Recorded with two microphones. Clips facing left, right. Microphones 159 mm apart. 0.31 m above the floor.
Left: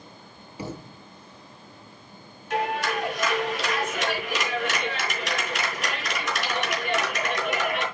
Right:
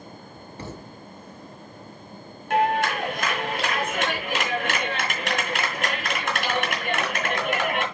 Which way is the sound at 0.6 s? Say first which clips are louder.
Left 3 dB; 10° left (ahead or behind).